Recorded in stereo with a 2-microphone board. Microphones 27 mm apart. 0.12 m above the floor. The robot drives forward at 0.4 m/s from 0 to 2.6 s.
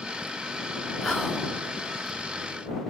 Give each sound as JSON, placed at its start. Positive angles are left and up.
{"t": 1.0, "sound": "whispering", "side_deg": 25, "distance_m": 1.8}